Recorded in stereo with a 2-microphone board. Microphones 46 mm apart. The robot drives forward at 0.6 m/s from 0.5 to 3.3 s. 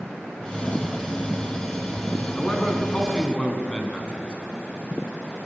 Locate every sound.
2.4 s a man speaking: 20° left (ahead or behind), 5 m